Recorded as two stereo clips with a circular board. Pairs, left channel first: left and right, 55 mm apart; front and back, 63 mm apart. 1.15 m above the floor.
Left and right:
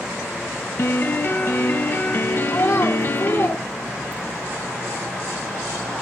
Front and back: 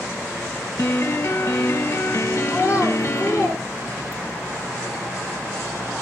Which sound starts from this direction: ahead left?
A piano, at 0.8 s.